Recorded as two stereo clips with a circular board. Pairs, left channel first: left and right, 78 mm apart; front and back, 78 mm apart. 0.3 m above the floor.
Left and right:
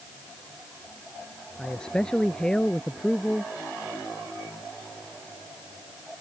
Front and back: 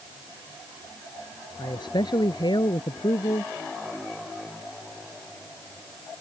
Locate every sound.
1.6 s a man speaking: 10° left